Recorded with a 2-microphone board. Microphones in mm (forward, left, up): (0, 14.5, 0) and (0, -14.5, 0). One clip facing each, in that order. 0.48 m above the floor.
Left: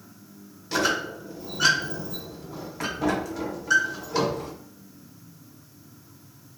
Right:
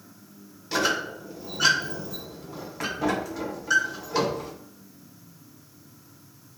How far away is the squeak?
About 0.5 m.